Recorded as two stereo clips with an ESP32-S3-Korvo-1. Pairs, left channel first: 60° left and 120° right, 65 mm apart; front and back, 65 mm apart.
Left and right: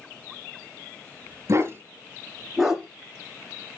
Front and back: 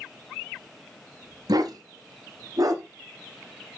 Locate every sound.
1.5 s a dog barking: 165° right, 0.9 m; by 2.8 s 150° left, 1.3 m